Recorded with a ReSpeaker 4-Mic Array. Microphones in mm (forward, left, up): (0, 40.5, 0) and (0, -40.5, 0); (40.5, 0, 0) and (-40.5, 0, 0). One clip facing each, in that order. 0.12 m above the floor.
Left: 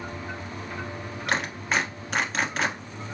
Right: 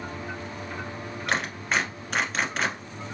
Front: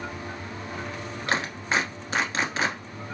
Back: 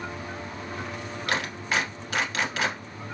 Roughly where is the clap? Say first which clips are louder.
Even, front 2 dB; ahead.